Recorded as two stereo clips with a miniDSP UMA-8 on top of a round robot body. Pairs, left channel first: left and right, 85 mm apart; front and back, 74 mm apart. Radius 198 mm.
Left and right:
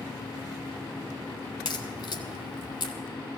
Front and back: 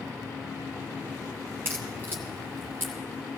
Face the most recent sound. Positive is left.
turn(degrees=120)